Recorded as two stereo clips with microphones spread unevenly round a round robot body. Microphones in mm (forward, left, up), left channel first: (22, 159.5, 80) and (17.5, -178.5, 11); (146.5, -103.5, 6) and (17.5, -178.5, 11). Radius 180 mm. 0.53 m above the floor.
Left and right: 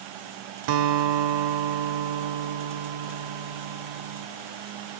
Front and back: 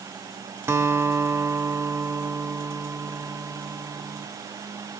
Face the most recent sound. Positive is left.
turn(degrees=-75)